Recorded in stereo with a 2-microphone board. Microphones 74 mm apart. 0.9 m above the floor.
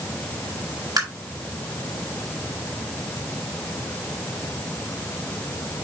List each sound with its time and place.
1.0 s tapping: 55° right (ahead or behind), 3 m